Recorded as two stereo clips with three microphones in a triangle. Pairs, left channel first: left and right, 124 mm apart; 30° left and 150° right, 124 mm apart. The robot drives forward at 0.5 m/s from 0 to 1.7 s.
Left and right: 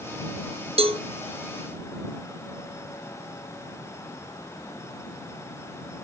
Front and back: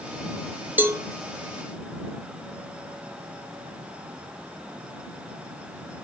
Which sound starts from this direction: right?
A cowbell, at 0.8 s.